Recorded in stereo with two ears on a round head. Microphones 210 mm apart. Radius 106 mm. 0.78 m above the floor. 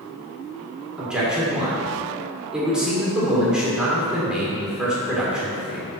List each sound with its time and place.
1.0 s a man speaking: 5° right (ahead or behind), 2.5 m